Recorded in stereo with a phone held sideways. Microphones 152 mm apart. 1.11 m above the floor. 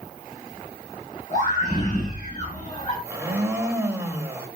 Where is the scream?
50° left (ahead or behind), 9.5 m; by 2.9 s 45° left (ahead or behind), 10 m.